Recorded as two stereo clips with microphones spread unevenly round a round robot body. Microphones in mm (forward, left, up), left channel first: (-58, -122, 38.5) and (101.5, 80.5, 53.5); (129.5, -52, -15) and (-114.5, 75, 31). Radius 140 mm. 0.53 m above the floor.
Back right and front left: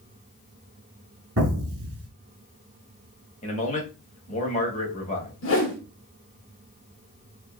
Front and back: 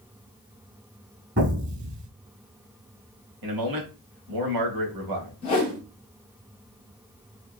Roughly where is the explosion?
Left.